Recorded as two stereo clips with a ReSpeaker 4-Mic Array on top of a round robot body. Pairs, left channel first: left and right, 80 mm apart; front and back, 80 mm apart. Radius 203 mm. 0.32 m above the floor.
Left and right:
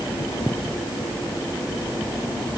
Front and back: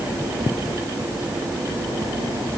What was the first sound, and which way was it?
Only background noise.